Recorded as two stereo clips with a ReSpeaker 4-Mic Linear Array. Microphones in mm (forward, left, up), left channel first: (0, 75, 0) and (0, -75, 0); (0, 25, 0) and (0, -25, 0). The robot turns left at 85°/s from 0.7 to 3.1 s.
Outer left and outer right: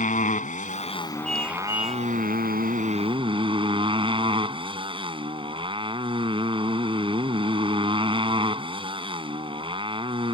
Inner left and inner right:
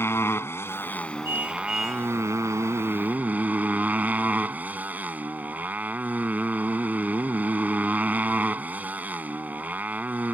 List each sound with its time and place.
0.0 s a motorcycle: 60° left; by 10.3 s 145° right
1.2 s a car horn: 125° right; by 2.1 s 165° left